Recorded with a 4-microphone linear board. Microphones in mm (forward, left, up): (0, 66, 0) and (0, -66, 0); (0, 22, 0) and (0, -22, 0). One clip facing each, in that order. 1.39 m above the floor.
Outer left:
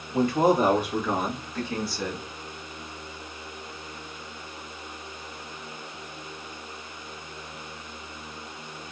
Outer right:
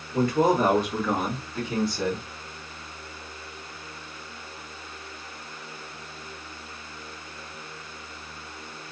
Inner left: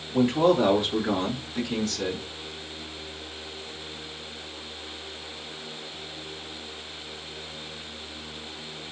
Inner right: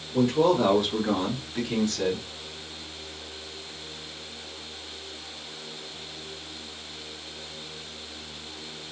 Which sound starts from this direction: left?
A man speaking, at 0.1 s.